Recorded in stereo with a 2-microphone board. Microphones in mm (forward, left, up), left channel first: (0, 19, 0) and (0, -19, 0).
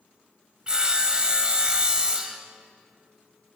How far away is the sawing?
About 0.6 m.